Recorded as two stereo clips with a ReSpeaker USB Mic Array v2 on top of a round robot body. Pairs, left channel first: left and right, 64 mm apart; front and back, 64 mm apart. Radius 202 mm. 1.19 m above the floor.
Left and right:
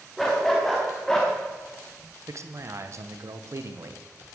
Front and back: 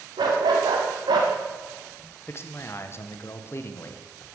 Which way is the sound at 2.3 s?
50° right.